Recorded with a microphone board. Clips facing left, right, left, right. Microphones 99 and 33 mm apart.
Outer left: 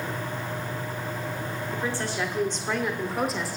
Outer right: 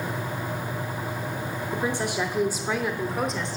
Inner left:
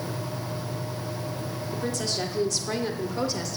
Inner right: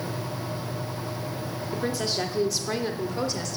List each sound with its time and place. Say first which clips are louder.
1.7 s a woman speaking: outer right 4 dB, inner right 2 dB; 20° right (ahead or behind), 0.9 m; by 3.6 s 5° left (ahead or behind), 1.3 m